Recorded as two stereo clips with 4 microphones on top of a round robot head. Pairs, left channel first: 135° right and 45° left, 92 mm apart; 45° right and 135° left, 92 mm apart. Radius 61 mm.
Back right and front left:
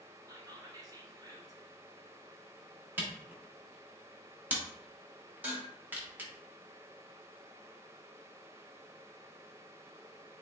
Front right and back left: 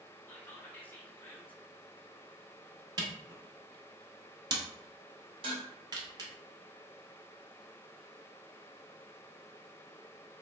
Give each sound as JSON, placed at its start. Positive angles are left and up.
{"t": 0.3, "sound": "whispering", "azimuth_deg": 20, "distance_m": 1.2}
{"t": 3.0, "sound": "a camera shutter", "azimuth_deg": 110, "distance_m": 1.1}
{"t": 5.4, "sound": "dishes clattering", "azimuth_deg": 115, "distance_m": 1.5}